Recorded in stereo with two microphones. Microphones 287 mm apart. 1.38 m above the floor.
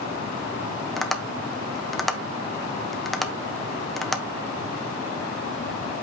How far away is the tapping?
About 0.9 m.